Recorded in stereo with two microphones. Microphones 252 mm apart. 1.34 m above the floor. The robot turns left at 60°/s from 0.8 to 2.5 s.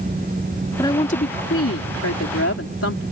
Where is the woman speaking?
165° left; by 3.0 s 65° left.